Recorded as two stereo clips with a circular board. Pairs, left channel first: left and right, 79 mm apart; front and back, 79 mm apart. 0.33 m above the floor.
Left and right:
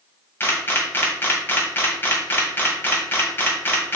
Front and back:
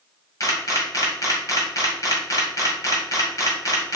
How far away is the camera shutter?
About 1.8 m.